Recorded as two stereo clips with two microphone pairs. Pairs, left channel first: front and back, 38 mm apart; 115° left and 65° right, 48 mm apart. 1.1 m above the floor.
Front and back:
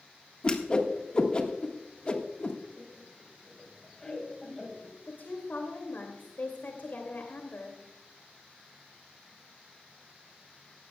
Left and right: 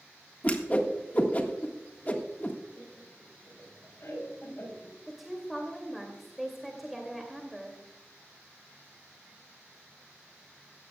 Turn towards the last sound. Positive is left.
turn(degrees=25)